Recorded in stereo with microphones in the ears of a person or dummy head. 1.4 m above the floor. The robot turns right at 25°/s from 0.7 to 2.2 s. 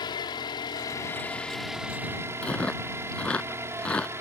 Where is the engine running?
155° left; by 4.2 s 165° right.